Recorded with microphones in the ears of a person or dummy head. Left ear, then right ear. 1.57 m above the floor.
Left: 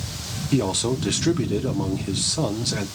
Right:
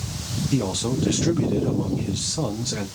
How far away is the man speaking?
About 0.5 m.